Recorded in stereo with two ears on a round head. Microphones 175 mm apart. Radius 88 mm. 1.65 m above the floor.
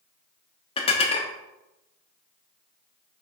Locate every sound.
0.8 s dishes clattering: 25° left (ahead or behind), 1.2 m